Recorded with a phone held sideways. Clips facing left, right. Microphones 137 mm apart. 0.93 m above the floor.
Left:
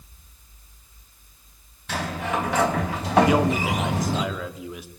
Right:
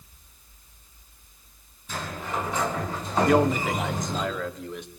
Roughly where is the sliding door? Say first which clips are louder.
Left 5 dB; left.